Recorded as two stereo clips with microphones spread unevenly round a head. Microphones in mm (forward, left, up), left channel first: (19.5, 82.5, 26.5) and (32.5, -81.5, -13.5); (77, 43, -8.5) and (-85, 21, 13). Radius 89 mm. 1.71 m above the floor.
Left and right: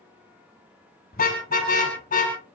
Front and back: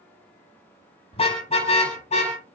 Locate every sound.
1.1 s a car horn: 65° left, 6 m; by 2.4 s 60° left, 6.5 m